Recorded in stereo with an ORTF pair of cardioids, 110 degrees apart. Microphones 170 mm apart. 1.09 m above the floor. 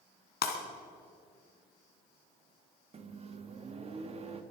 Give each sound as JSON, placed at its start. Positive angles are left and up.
{"t": 0.4, "sound": "breaking glass", "azimuth_deg": 60, "distance_m": 3.0}
{"t": 2.9, "sound": "a microwave", "azimuth_deg": -35, "distance_m": 1.4}